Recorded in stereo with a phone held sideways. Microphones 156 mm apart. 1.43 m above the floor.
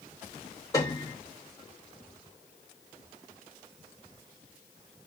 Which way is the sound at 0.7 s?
20° left (ahead or behind).